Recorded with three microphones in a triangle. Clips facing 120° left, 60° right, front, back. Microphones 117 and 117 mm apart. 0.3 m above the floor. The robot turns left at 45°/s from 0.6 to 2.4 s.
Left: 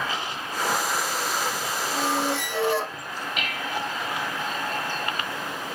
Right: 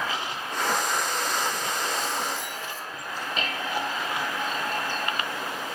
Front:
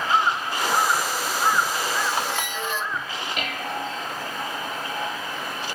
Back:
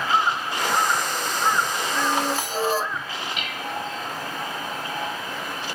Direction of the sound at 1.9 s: 145° left.